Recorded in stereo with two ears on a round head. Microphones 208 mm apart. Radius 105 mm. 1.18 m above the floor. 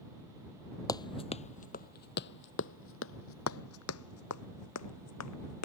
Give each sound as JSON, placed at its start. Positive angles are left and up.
{"t": 0.9, "sound": "running footsteps", "side_deg": 15}